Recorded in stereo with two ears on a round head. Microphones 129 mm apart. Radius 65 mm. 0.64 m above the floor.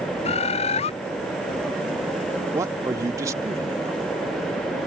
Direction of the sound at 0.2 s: 50° left (ahead or behind).